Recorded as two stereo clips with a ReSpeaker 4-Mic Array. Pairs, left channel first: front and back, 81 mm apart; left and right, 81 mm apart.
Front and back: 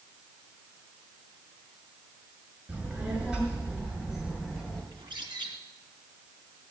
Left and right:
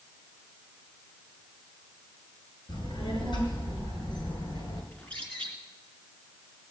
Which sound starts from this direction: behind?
A bird, at 4.9 s.